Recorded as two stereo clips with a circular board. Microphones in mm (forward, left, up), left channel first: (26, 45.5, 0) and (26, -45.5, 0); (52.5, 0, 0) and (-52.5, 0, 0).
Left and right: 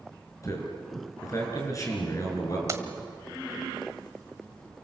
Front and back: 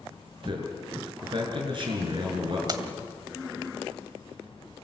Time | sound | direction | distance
0.4 | a man speaking | 140° left | 7 m
2.7 | keys jangling | 140° right | 1.4 m